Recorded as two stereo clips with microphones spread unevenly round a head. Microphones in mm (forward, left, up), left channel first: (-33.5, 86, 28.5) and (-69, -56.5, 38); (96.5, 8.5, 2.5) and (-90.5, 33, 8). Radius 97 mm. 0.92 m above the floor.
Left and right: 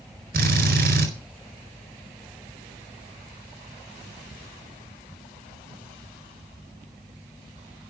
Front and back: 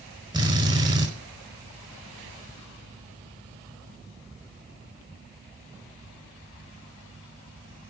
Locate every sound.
0.3 s a drill: 120° right, 4.5 m